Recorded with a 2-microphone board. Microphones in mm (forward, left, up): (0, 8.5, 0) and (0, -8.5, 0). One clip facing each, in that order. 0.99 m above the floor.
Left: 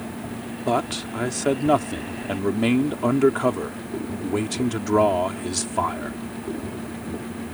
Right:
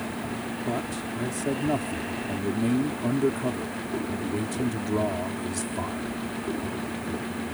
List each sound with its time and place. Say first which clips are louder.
0.7 s a man speaking: left 9 dB; 55° left (ahead or behind)